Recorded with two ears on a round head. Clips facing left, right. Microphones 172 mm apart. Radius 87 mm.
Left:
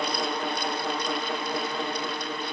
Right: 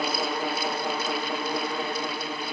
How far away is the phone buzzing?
I don't hear a phone buzzing.